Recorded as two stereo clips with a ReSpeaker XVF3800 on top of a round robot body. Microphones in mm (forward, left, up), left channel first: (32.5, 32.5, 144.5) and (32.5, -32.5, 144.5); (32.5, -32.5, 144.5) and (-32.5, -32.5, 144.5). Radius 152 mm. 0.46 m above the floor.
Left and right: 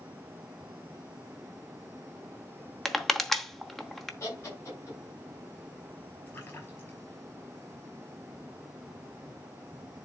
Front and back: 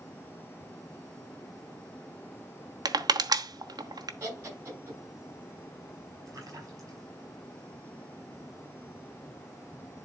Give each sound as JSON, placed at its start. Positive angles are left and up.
{"t": 2.9, "sound": "crushing", "azimuth_deg": 175, "distance_m": 1.0}
{"t": 4.2, "sound": "laughter", "azimuth_deg": 135, "distance_m": 7.0}
{"t": 6.3, "sound": "a splash", "azimuth_deg": 150, "distance_m": 4.5}